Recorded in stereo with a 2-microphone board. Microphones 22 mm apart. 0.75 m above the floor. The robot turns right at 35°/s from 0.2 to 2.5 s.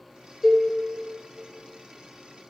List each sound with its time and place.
0.4 s a cowbell: 5° right (ahead or behind), 1.0 m; by 0.7 s centre (ahead or behind), 1.0 m